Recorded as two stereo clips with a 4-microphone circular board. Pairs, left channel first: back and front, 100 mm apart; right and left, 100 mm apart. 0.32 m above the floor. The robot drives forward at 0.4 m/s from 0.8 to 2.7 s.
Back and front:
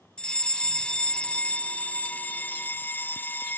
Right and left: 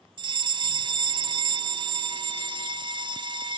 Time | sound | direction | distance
0.2 | a fire alarm | 100° left | ?